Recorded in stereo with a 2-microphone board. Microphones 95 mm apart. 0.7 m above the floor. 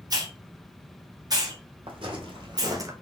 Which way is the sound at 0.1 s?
40° right (ahead or behind).